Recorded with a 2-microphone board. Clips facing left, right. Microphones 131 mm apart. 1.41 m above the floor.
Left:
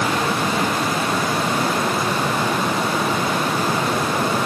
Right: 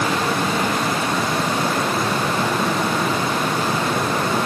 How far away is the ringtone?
No ringtone in this recording.